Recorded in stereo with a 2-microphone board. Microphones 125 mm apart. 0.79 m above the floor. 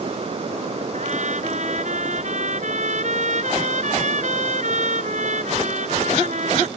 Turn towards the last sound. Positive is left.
turn(degrees=-70)  # may be behind; listen again after turning